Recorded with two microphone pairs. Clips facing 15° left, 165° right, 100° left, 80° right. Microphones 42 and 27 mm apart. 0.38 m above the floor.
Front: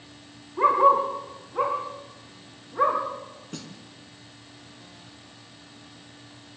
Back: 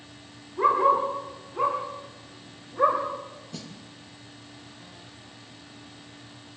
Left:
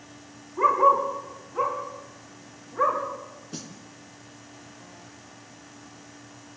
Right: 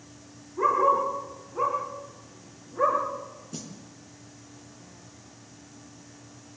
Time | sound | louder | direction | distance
0.6 | a dog barking | front 2 dB, left 3 dB | 45° left | 8 m
3.5 | a snare drum | front 4 dB, left 2 dB | 45° left | 3 m